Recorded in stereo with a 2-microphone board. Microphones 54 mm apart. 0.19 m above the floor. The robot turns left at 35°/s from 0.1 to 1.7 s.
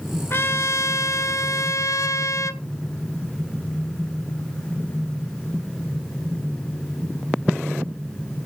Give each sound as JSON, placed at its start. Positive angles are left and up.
{"t": 0.3, "sound": "a trumpet", "azimuth_deg": 130, "distance_m": 0.7}